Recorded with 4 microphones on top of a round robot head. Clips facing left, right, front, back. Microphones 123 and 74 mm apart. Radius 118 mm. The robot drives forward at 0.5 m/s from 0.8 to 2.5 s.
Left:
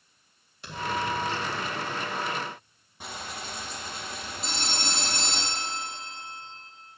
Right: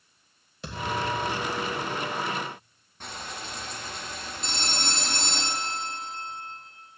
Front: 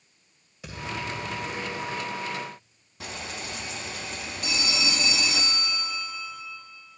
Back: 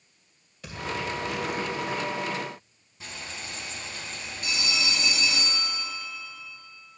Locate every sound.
0.6 s a thud: 85° right, 2 m; by 2.0 s 100° right, 2 m
3.0 s frying: 10° left, 0.7 m
4.4 s a phone ringing: 5° left, 1.6 m